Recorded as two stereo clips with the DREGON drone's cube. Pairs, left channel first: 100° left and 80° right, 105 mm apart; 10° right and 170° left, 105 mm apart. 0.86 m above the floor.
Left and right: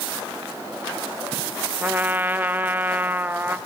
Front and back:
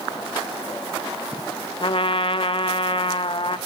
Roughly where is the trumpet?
Ahead.